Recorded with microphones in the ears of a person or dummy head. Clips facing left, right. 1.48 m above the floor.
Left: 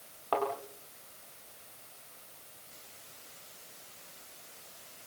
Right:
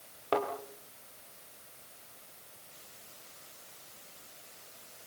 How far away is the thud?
About 8.5 m.